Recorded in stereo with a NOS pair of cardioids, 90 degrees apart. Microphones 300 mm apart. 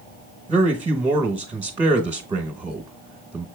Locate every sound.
0.5 s a man speaking: 20° right, 1.1 m